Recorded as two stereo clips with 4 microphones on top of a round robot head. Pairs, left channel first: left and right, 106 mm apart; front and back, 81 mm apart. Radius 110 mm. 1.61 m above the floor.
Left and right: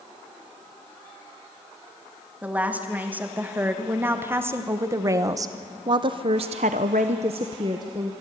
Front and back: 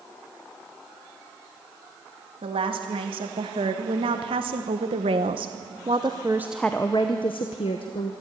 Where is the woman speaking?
165° right, 2.5 m; by 8.1 s 25° right, 1.0 m.